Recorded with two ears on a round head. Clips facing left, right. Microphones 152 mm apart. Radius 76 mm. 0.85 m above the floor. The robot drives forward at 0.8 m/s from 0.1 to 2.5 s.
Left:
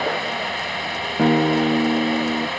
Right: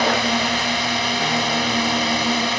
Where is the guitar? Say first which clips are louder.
Left 11 dB; 70° left (ahead or behind); by 2.5 s 30° left (ahead or behind).